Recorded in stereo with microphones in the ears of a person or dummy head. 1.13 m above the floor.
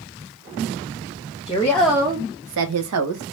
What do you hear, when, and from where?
1.5 s a woman speaking: 20° left (ahead or behind), 0.9 m; by 3.2 s 75° right (ahead or behind), 1.1 m